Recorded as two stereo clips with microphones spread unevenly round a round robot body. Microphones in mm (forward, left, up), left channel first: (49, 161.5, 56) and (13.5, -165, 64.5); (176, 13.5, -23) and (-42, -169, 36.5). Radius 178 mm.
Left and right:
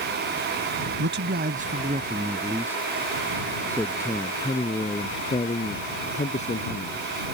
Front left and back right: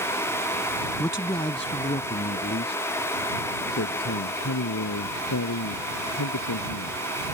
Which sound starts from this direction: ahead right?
A man speaking, at 1.0 s.